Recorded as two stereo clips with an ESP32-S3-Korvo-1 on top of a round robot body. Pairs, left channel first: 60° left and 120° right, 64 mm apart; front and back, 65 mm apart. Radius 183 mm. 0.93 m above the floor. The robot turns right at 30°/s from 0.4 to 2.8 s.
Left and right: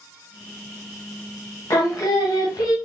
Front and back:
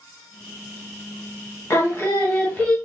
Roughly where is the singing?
Ahead left.